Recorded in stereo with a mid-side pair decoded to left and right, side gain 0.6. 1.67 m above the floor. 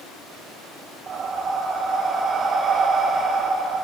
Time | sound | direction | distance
1.1 | breathing | 50° right | 1.4 m